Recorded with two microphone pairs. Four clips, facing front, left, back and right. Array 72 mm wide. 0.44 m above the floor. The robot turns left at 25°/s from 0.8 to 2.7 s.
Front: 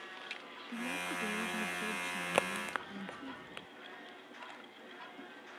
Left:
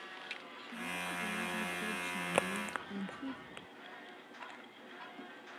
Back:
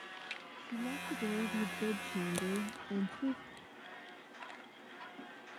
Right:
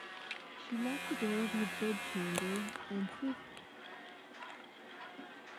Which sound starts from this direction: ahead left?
A crack, at 2.3 s.